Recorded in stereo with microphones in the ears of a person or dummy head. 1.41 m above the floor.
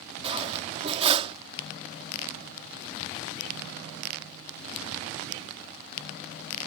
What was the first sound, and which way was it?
Cutlery clinking, 30° right (ahead or behind).